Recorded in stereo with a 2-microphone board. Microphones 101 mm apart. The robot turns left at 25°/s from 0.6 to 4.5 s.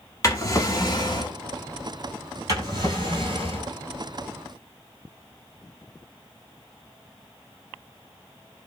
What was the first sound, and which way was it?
A drawer, 35° left (ahead or behind).